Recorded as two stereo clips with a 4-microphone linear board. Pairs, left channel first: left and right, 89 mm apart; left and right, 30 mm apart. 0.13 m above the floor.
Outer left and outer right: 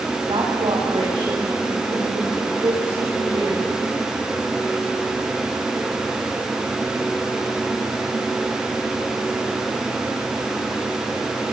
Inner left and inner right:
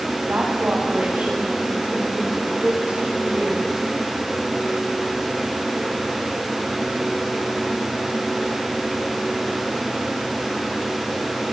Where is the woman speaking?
80° right, 8 m; by 3.6 s 65° right (ahead or behind), 11.5 m.